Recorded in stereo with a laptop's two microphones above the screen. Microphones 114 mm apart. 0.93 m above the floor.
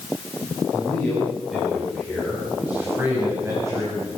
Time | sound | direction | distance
0.7 | a man speaking | 5° left (ahead or behind) | 7 m